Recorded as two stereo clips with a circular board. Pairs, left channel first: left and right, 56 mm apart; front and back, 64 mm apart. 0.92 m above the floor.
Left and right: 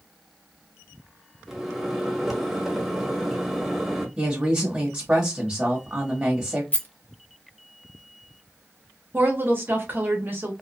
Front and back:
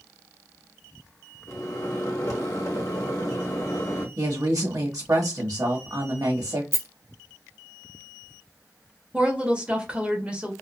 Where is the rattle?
140° left, 0.6 m.